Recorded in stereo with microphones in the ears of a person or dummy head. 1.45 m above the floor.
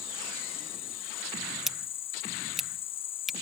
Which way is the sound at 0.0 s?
30° left (ahead or behind).